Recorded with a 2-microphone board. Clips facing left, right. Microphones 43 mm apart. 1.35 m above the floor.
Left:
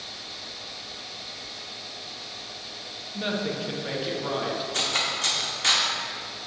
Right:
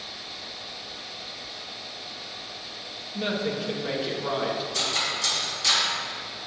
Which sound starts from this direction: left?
Cutlery clinking, at 4.7 s.